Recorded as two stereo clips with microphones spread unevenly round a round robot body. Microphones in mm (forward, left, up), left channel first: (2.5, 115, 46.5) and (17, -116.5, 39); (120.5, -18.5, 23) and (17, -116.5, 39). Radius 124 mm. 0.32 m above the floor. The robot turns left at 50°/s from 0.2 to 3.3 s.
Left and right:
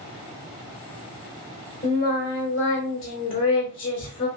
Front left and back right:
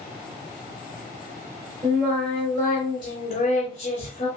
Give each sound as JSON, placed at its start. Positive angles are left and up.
{"t": 1.8, "sound": "singing", "azimuth_deg": 150, "distance_m": 1.4}